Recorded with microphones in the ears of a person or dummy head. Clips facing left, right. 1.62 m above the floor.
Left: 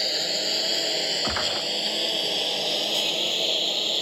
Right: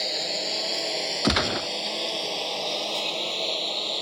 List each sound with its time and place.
0.0 s a lawn mower: 5° left (ahead or behind); by 4.0 s 10° left (ahead or behind)
1.2 s a gunshot: 45° right (ahead or behind)